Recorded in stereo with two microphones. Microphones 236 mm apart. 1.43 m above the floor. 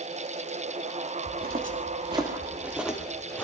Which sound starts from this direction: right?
Footsteps, at 1.3 s.